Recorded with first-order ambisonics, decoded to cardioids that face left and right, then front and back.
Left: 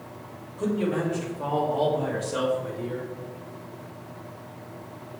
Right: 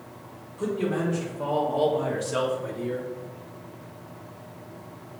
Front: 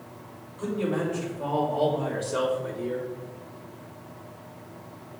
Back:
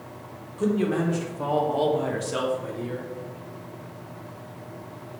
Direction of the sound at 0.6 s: 175° right.